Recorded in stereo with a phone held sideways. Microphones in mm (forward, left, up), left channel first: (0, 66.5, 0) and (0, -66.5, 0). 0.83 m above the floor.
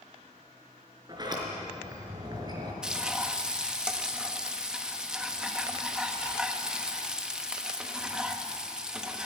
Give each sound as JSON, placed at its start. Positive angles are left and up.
{"t": 1.1, "sound": "a sliding door", "side_deg": -35, "distance_m": 4.5}
{"t": 2.8, "sound": "frying", "side_deg": -5, "distance_m": 1.3}